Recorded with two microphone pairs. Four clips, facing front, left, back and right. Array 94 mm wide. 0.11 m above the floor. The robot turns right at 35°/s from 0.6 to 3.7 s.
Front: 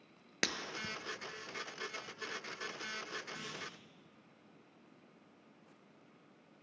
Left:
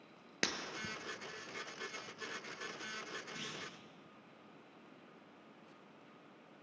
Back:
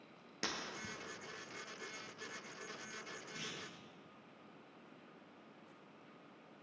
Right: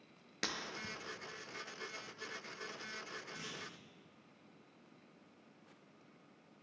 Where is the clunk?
115° left, 3 m; by 3.7 s 130° left, 3 m.